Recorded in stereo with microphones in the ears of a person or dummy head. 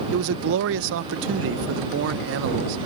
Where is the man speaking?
65° right (ahead or behind).